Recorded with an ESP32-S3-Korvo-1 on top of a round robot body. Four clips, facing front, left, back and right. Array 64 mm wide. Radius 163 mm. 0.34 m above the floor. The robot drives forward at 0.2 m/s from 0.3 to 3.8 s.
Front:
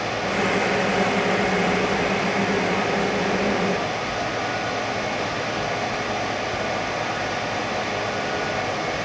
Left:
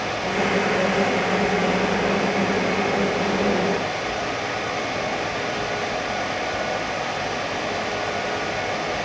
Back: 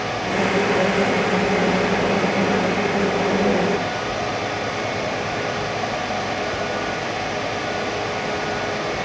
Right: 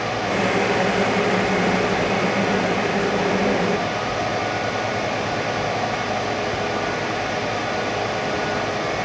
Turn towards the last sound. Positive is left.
No sound to turn to.